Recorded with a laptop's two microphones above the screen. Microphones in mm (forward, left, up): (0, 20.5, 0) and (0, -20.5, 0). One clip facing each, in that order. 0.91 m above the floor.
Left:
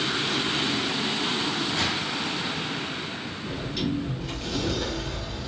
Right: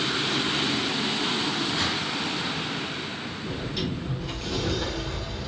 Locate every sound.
1.8 s a gunshot: 75° left (ahead or behind), 1.7 m
3.5 s a sliding door: centre (ahead or behind), 0.9 m